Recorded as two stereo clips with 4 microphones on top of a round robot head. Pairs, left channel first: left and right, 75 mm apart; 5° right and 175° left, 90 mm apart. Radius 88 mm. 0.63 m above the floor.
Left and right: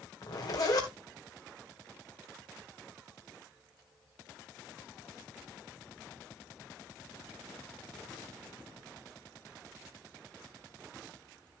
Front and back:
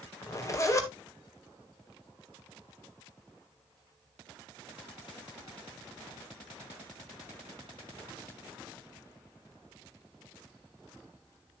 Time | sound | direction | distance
0.2 | a zipper | 45° left | 2.0 m